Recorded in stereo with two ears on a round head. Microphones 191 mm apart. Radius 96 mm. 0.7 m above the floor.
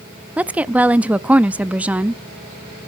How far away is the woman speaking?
About 0.5 m.